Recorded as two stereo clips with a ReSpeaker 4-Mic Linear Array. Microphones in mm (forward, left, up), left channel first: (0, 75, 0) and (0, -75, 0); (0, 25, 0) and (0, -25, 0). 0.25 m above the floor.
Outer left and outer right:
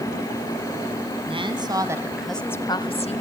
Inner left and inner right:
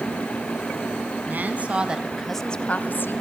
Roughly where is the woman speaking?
Right.